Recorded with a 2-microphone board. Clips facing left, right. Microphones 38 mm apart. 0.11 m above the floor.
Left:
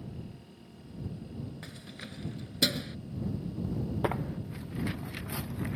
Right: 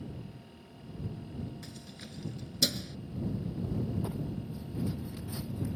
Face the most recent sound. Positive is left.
turn(degrees=80)